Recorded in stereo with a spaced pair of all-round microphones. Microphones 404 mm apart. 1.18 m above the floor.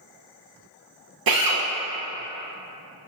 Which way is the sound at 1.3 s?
60° right (ahead or behind).